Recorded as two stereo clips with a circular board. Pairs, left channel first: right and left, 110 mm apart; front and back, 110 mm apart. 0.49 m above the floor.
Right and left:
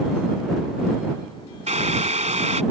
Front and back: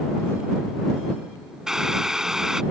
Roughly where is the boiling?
Left.